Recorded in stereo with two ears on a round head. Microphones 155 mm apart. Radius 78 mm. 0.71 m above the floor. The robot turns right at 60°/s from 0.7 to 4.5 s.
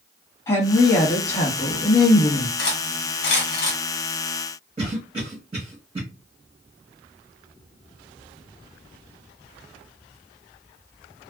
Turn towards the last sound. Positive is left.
turn(degrees=-25)  # may be behind; listen again after turning